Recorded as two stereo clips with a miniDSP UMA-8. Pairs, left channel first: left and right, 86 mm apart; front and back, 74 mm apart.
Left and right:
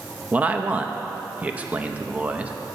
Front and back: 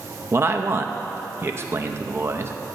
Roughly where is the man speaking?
Behind right.